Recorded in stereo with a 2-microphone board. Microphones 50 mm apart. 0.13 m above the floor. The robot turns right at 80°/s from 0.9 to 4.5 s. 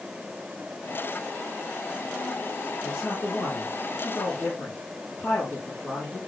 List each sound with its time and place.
2.8 s a man speaking: 15° left, 6.5 m; by 6.2 s 150° left, 6.5 m